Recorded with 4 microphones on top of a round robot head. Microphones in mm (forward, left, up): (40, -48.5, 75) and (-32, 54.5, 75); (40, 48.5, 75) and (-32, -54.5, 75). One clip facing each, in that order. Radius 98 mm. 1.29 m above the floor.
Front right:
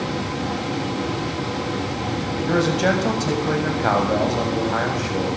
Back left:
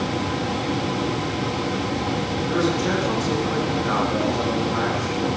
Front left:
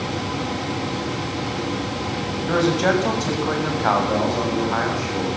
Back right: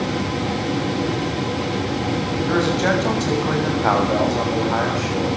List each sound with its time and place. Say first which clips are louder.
2.5 s a man speaking: front right 3 dB, front left 1 dB; 25° right, 7.5 m; by 5.3 s 60° right, 7.5 m